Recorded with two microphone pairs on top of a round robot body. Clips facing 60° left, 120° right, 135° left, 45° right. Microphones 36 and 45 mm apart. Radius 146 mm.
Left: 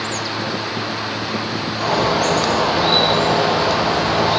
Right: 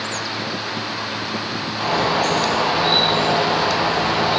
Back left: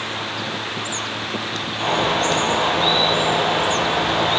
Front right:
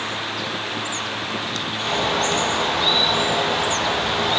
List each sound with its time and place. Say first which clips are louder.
1.8 s a bird: left 1 dB, back left 3 dB; 170° right, 6 m